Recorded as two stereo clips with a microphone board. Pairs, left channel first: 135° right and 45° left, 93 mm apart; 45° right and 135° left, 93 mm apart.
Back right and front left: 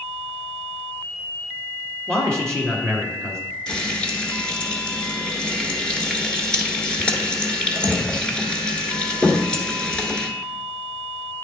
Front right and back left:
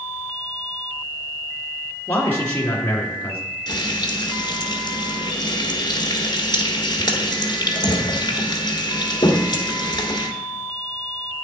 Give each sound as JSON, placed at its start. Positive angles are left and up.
{"t": 2.1, "sound": "a man speaking", "azimuth_deg": -70, "distance_m": 1.5}
{"t": 3.7, "sound": "frying", "azimuth_deg": -55, "distance_m": 1.1}